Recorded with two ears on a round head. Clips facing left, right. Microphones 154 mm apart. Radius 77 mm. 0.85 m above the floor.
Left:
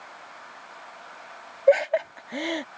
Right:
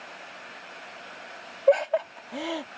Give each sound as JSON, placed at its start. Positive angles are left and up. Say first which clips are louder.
{"t": 1.7, "sound": "laughter", "louder": "left 2 dB", "side_deg": 15}